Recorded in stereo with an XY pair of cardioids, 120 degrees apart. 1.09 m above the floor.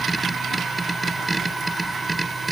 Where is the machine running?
15° right.